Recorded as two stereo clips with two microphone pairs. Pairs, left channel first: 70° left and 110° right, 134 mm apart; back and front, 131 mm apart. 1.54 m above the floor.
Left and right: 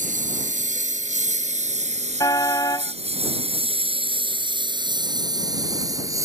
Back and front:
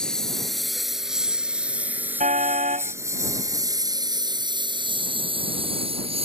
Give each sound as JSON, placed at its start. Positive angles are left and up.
{"t": 0.0, "sound": "a lawn mower", "azimuth_deg": -100}
{"t": 2.2, "sound": "a car horn", "azimuth_deg": 10}